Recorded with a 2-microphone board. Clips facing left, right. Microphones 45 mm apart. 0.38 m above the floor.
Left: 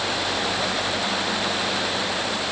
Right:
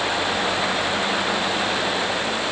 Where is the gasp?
I don't hear a gasp.